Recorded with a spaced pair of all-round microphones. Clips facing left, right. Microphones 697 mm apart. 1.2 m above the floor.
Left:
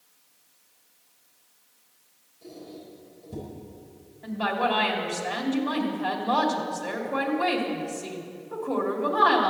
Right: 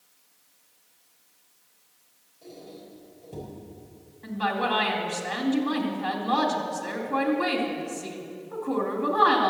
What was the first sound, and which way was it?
A squeak, 45° left (ahead or behind).